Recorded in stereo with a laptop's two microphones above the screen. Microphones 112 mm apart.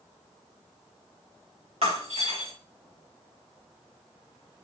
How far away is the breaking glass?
About 4 m.